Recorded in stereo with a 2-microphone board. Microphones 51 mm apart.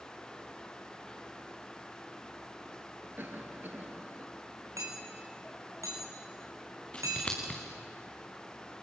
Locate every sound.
3.2 s a cough: 45° right (ahead or behind), 2.5 m
4.8 s hammering: 85° right, 5 m
6.9 s scissors: 25° left (ahead or behind), 4 m